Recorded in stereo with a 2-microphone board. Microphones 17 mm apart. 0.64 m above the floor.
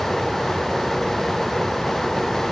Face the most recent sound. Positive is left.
No sound to turn to.